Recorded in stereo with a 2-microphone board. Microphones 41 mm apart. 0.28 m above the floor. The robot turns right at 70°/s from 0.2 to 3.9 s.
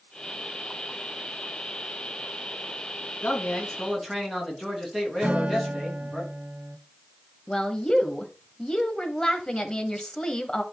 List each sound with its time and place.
3.2 s a man speaking: 130° left, 3 m; by 6.2 s 175° left, 3 m
5.2 s a guitar: 35° right (ahead or behind), 0.8 m
7.5 s a woman speaking: 15° left (ahead or behind), 1.3 m